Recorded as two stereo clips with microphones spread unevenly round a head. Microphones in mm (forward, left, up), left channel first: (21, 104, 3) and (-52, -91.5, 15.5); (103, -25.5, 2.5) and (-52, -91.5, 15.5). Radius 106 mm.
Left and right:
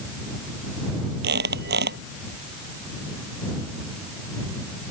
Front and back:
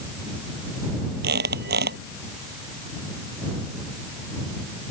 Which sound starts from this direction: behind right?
A squeak, at 1.2 s.